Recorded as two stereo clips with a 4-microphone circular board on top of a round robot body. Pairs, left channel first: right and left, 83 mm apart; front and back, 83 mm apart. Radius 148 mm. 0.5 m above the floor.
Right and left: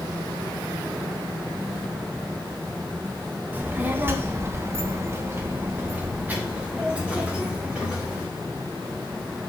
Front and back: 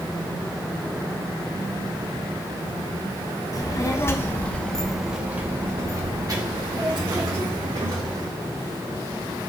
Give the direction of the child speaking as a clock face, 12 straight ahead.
11 o'clock.